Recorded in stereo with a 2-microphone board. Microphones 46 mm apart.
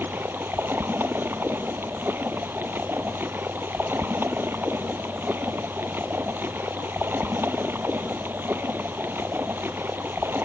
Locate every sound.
0.0 s running water: 50° right (ahead or behind)